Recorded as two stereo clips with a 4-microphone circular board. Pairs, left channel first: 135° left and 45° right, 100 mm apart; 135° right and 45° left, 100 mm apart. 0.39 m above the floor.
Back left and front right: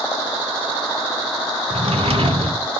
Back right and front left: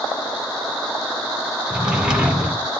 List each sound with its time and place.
1.7 s a drawer: 35° right, 1.1 m